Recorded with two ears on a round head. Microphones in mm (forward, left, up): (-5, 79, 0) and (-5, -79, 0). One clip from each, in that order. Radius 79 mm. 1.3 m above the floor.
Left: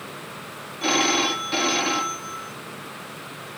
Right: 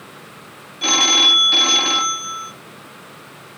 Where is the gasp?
No gasp in this recording.